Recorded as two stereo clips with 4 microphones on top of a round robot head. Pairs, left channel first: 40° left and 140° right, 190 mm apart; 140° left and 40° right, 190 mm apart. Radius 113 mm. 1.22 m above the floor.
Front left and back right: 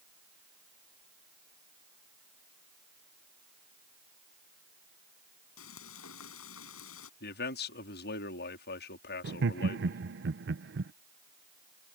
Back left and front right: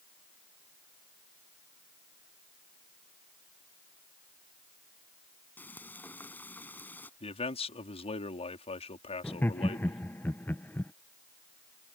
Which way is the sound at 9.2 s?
140° right.